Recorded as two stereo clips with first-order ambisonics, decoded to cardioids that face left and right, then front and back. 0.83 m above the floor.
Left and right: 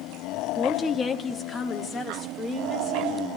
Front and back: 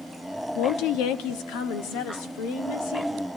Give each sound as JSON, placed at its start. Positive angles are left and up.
{"t": 0.6, "sound": "a woman speaking", "azimuth_deg": 20, "distance_m": 0.7}